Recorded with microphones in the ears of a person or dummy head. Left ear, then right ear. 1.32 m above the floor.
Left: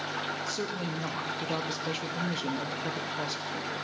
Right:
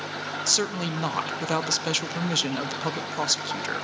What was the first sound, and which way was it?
A woman speaking, 35° right (ahead or behind).